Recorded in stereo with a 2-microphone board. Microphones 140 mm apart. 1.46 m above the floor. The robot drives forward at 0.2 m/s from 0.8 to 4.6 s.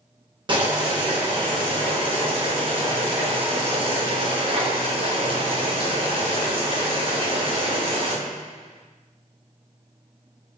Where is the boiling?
35° right (ahead or behind), 1.0 m; by 8.2 s 40° right (ahead or behind), 0.9 m.